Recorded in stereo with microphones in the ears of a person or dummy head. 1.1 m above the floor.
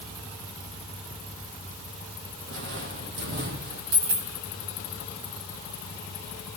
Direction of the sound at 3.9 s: 75° right (ahead or behind).